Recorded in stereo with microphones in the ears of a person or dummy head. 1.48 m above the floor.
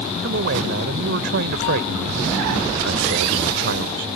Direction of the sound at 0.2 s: 60° right (ahead or behind).